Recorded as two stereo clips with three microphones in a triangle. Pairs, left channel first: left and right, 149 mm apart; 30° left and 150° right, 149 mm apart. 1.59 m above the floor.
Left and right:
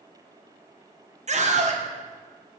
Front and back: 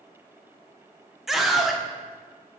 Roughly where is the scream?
Ahead right.